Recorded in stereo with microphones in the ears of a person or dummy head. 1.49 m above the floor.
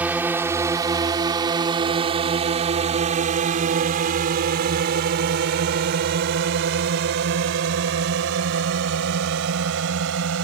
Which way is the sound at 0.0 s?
10° right (ahead or behind).